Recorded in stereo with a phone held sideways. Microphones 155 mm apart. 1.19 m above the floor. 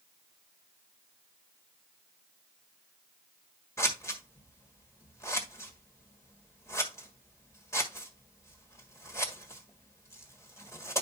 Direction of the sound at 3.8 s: 15° left (ahead or behind).